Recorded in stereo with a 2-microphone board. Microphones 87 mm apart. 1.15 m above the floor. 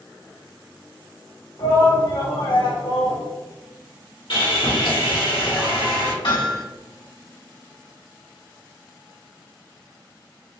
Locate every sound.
1.6 s a shout: 75° left (ahead or behind), 1.9 m; by 3.2 s 85° left, 0.9 m
4.3 s sawing: 65° left (ahead or behind), 1.3 m
6.2 s hammering: 70° left (ahead or behind), 1.8 m